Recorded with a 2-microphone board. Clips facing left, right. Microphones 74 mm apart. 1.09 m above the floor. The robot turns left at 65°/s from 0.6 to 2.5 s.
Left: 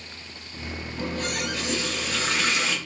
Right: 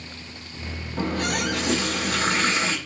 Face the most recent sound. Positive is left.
turn(degrees=-145)